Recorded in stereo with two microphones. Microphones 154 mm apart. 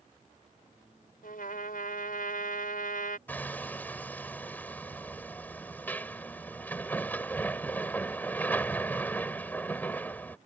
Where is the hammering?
15° left (ahead or behind).